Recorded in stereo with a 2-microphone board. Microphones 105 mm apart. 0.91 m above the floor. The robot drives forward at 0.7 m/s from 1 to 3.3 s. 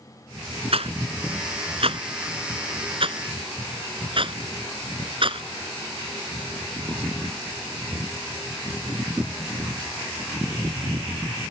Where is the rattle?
65° right (ahead or behind); by 5.5 s 55° right (ahead or behind).